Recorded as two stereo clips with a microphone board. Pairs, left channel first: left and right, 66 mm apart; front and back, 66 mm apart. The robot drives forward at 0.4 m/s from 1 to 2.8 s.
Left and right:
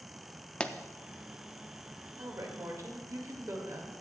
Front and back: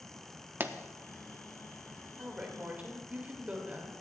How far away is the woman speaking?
About 1.9 m.